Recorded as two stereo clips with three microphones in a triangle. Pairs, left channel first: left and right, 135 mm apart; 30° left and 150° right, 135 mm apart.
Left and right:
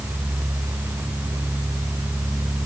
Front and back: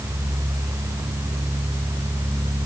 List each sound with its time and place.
Only background noise.